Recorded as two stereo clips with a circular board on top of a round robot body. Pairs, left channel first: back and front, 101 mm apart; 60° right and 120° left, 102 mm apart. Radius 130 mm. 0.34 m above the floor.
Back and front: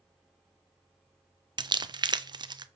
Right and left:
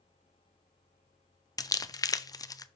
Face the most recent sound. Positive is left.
turn(degrees=-20)